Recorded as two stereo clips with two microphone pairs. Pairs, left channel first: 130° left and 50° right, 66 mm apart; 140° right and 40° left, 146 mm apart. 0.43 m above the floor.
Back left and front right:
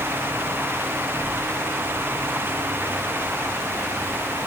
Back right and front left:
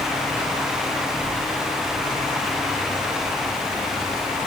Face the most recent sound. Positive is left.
No sound to turn to.